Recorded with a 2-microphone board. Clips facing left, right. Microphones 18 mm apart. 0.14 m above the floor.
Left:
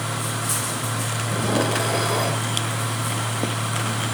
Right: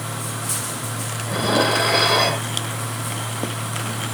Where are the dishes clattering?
60° right (ahead or behind).